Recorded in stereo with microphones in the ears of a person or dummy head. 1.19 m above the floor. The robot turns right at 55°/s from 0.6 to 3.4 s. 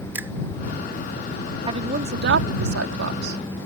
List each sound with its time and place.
0.1 s a finger snap: 15° right (ahead or behind)
1.7 s a woman speaking: 25° right (ahead or behind); by 3.6 s 60° right (ahead or behind)